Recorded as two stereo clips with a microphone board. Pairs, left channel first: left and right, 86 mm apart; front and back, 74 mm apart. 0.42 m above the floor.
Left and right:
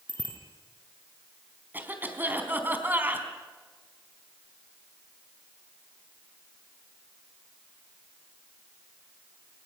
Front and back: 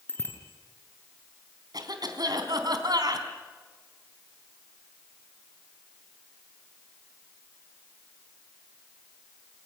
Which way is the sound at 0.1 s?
60° right.